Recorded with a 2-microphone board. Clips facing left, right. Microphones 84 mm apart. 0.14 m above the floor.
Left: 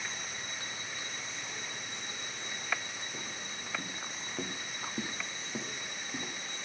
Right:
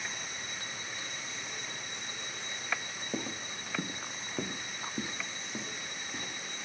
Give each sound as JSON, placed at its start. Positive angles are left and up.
{"t": 3.1, "sound": "footsteps", "side_deg": -80, "distance_m": 0.7}